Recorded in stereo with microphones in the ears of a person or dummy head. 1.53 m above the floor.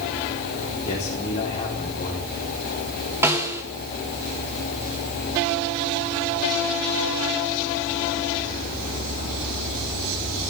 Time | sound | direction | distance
0.9 | a man speaking | 30° left (ahead or behind) | 3.5 m
3.2 | a snare drum | 15° right (ahead or behind) | 2.5 m